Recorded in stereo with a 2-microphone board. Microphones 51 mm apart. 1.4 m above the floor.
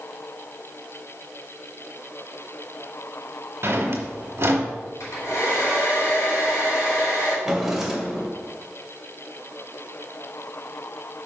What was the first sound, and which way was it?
A drawer, 55° right (ahead or behind).